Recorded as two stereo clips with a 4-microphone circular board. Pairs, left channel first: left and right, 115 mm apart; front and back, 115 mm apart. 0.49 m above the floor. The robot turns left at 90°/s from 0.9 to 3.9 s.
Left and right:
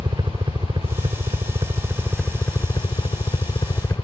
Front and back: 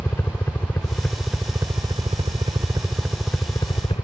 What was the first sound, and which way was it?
A helicopter, 65° right.